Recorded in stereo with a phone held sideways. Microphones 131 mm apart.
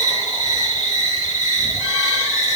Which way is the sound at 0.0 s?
75° left (ahead or behind).